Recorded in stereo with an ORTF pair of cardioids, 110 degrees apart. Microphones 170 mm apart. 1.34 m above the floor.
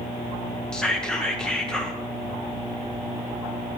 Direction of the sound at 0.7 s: 5° left.